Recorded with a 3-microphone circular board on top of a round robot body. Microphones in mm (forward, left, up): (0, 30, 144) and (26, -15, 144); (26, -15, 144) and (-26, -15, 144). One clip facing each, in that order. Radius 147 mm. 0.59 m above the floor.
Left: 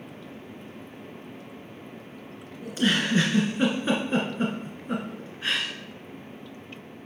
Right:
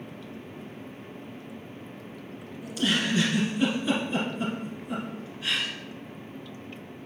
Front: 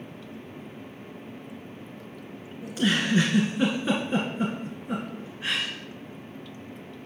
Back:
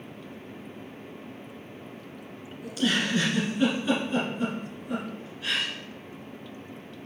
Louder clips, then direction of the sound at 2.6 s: Left 2 dB, front 1 dB; 65° left.